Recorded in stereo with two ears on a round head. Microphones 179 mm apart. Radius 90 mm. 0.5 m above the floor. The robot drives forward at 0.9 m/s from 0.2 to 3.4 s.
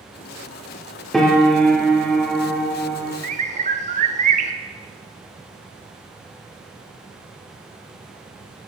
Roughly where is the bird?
Right.